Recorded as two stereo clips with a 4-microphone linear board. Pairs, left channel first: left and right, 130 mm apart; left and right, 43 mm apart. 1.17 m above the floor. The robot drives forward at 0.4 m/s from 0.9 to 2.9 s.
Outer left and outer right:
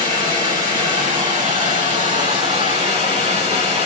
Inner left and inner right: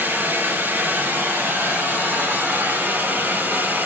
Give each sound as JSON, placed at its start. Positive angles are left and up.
{"t": 0.0, "sound": "running water", "side_deg": -80, "distance_m": 3.0}